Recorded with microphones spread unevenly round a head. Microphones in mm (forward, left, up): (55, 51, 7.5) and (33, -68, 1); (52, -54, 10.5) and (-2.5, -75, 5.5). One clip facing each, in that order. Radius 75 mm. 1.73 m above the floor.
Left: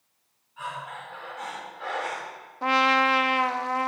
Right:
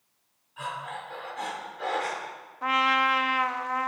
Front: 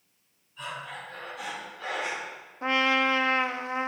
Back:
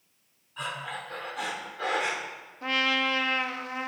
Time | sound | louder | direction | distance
0.6 | breathing | right 1 dB, back 3 dB | 150° right | 4 m
2.6 | a trumpet | left 3 dB, front 3 dB | 55° left | 0.7 m